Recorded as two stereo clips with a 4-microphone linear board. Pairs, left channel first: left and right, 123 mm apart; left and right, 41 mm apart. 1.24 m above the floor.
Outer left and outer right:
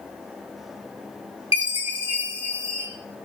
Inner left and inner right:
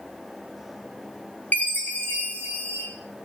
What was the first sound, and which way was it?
A chime, 50° left (ahead or behind).